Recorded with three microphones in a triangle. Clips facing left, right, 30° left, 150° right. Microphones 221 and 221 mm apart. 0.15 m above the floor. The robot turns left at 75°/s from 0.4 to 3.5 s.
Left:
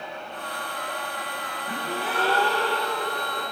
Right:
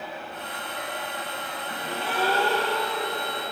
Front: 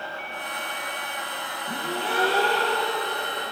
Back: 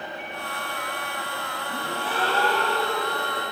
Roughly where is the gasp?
Ahead left.